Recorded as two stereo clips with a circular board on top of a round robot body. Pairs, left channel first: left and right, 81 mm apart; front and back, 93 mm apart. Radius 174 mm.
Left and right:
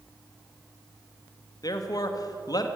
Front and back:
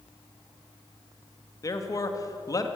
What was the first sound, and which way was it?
A man speaking, 50° left.